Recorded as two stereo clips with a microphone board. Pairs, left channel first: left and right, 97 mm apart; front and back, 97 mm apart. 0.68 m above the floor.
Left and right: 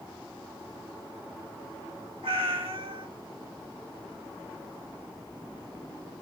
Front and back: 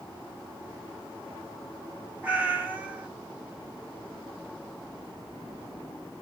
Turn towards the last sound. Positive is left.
turn(degrees=-105)